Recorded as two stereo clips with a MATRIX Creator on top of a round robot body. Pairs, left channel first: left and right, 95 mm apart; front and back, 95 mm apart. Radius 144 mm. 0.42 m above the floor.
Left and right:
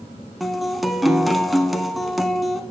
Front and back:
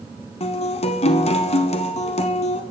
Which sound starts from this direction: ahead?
A guitar, at 0.4 s.